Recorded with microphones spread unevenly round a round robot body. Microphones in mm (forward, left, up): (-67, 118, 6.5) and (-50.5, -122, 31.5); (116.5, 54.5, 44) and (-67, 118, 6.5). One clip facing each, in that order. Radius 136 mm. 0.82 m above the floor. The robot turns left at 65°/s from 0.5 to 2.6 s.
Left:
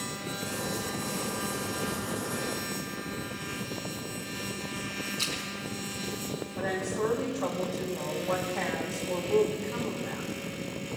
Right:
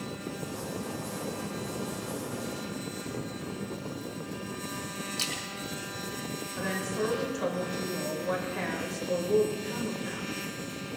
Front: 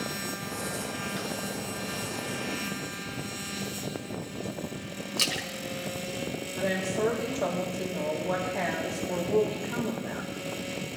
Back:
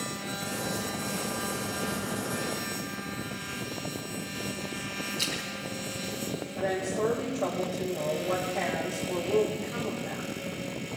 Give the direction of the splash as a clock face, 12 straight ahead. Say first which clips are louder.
Left 1 dB, front 1 dB; 1 o'clock.